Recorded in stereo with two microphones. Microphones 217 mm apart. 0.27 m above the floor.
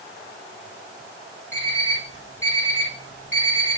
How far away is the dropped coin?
I don't hear a dropped coin.